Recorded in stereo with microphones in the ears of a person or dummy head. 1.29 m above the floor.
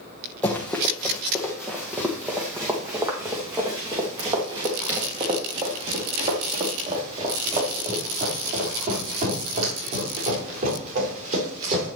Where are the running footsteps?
10° left (ahead or behind), 2.5 m; by 11.9 s 45° right (ahead or behind), 8.5 m.